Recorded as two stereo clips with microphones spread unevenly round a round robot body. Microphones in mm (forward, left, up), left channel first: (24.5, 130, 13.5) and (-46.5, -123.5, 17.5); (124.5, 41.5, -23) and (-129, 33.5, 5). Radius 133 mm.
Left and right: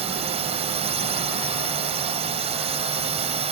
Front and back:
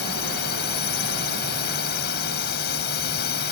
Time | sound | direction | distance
0.0 | a drone | 40° right | ?